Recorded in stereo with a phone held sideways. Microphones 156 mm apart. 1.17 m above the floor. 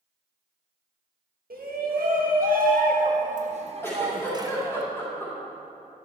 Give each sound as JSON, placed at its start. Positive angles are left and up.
{"t": 1.5, "sound": "a shout", "side_deg": -70, "distance_m": 1.9}
{"t": 3.8, "sound": "a giggle", "side_deg": 15, "distance_m": 3.0}